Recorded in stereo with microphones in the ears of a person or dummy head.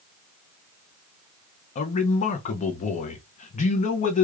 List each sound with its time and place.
1.8 s a man speaking: 35° left (ahead or behind), 0.6 m